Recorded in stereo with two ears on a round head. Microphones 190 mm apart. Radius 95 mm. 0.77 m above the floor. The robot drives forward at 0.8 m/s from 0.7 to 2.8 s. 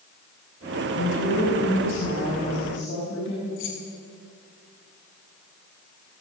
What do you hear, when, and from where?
0.9 s a woman speaking: 70° left (ahead or behind), 6.5 m; by 3.5 s 60° left (ahead or behind), 7 m
3.6 s keys jangling: 65° left (ahead or behind), 6 m